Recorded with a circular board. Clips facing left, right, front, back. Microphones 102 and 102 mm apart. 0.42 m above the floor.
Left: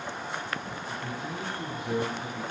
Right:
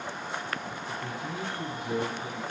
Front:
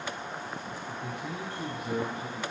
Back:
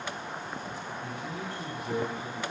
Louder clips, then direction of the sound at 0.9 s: Even, front 3 dB; 45° right.